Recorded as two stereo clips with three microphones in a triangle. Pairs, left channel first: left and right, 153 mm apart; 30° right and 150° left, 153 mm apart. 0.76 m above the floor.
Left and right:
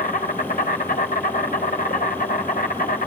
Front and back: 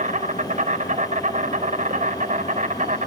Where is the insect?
110° left, 4 m.